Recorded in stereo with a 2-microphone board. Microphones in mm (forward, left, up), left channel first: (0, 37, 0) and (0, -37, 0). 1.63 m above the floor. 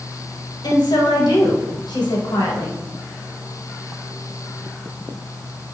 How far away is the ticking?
I don't hear ticking.